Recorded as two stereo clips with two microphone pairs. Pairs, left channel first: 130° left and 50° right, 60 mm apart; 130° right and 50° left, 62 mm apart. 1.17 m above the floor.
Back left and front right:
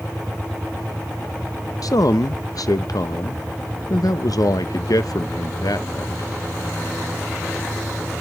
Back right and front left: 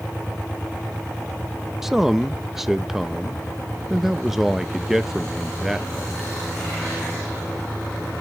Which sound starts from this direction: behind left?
A man speaking, at 1.8 s.